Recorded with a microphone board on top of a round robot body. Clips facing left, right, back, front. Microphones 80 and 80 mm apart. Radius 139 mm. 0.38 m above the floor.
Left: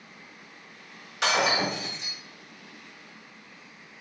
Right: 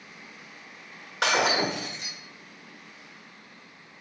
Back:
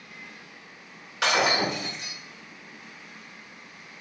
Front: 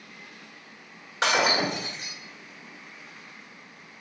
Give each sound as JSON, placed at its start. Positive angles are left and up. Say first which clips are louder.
{"t": 1.2, "sound": "breaking glass", "louder": "right 1 dB, even", "azimuth_deg": -55, "distance_m": 1.2}